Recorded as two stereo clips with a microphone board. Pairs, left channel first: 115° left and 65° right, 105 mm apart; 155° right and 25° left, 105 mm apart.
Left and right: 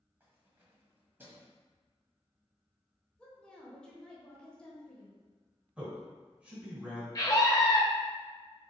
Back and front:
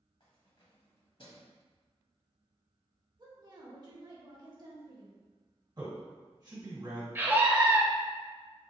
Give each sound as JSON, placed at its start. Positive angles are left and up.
{"t": 0.2, "sound": "keys jangling", "azimuth_deg": -135, "distance_m": 1.2}
{"t": 3.2, "sound": "a woman speaking", "azimuth_deg": 40, "distance_m": 1.2}
{"t": 5.8, "sound": "a man speaking", "azimuth_deg": 10, "distance_m": 1.9}
{"t": 7.2, "sound": "a scream", "azimuth_deg": 80, "distance_m": 1.1}